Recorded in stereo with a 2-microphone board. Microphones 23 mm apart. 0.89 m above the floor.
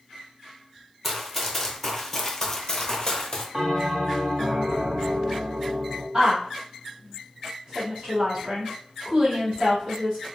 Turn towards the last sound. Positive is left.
turn(degrees=-45)  # may be behind; listen again after turning